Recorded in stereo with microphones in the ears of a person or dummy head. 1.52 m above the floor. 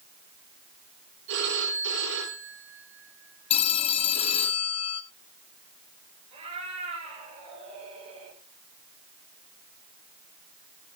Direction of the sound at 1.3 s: 60° right (ahead or behind).